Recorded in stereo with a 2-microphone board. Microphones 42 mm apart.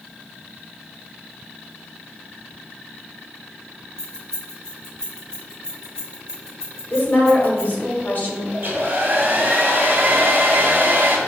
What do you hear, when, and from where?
4.0 s keys jangling: 15° left (ahead or behind), 1.4 m
6.9 s a woman speaking: 40° left (ahead or behind), 1.8 m
8.5 s a hair dryer: 50° right (ahead or behind), 1.0 m